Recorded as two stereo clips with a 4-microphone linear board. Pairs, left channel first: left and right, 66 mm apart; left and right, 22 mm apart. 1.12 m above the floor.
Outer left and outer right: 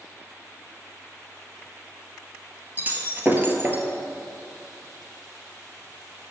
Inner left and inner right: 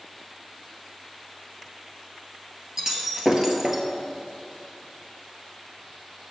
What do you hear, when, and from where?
2.8 s breaking glass: 30° right (ahead or behind), 1.2 m